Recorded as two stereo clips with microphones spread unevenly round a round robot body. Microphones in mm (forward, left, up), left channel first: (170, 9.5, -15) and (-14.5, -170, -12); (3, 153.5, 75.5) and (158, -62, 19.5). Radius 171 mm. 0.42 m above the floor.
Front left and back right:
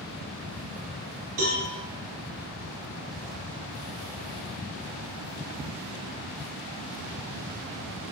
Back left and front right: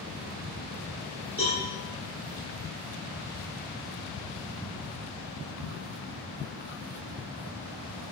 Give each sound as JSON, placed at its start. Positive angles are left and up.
{"t": 1.4, "sound": "a cowbell", "azimuth_deg": -150, "distance_m": 0.9}